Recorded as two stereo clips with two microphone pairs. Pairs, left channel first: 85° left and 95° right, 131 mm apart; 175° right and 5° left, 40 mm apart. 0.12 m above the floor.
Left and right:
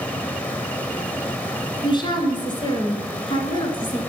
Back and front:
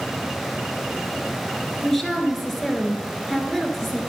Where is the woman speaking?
105° left, 1.5 m.